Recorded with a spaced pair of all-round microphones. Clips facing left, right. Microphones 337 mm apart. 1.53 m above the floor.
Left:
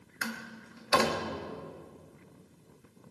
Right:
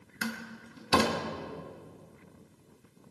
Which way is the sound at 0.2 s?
45° right (ahead or behind).